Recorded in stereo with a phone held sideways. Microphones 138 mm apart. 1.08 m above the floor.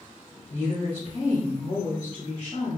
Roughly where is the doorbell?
No doorbell in this recording.